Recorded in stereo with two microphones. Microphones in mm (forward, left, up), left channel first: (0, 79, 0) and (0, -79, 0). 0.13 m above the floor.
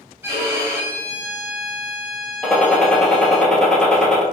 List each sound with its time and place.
0.2 s a violin: 15° right (ahead or behind), 1.2 m
2.4 s a gunshot: 5° left (ahead or behind), 1.2 m